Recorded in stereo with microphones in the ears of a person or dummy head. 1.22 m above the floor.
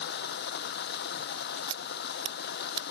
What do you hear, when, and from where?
0.0 s running water: 55° left (ahead or behind)
1.7 s scissors: 25° right (ahead or behind)